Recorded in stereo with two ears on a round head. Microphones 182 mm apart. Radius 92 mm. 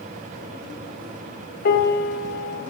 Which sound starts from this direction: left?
A piano, at 1.6 s.